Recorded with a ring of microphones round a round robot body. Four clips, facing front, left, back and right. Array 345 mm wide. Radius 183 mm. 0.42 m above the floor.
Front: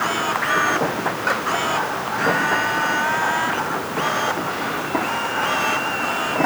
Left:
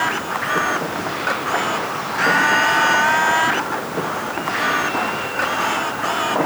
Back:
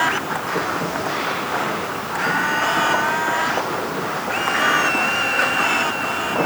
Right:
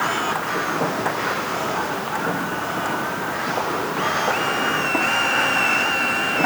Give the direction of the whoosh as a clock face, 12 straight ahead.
No whoosh in this recording.